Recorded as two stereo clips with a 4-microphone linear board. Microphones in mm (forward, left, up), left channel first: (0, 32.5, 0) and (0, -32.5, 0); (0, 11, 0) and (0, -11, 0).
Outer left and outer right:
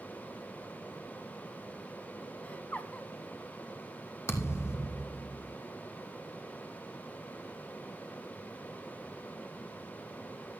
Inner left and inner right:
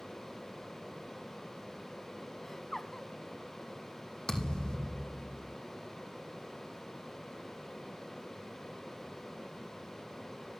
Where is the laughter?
25° left (ahead or behind), 1.4 m.